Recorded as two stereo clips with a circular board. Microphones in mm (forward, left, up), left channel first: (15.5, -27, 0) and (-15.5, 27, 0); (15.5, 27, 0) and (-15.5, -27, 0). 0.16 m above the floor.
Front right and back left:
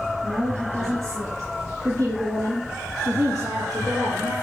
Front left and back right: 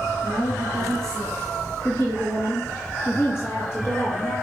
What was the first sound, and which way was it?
A woman speaking, 150° left.